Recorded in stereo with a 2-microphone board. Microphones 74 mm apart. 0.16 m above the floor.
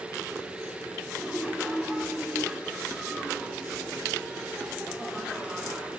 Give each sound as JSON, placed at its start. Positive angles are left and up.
{"t": 1.1, "sound": "laughter", "side_deg": 0, "distance_m": 5.5}